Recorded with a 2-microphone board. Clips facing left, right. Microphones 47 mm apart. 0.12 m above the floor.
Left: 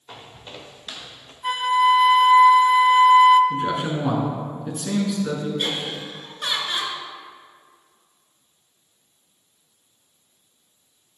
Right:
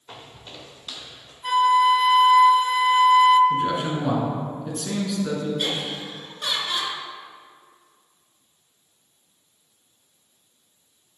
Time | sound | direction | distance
0.1 | footsteps | 5° left (ahead or behind) | 1.0 m
1.4 | a flute | 15° left (ahead or behind) | 0.6 m
3.5 | a man speaking | 10° left (ahead or behind) | 1.7 m
5.6 | laughter | 20° left (ahead or behind) | 1.8 m